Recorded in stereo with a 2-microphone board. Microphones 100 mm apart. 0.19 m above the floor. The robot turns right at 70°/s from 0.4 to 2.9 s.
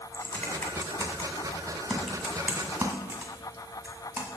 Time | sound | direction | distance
0.1 | typing on a keyboard | 15° left (ahead or behind) | 1.6 m